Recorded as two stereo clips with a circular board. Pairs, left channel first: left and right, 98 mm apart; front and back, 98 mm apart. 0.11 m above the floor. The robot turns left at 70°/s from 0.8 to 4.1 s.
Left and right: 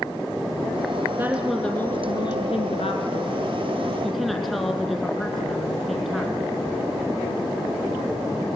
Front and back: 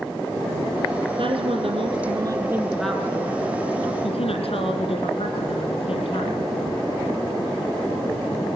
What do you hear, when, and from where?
1.2 s a woman speaking: 155° right, 3.5 m; by 6.5 s straight ahead, 3.5 m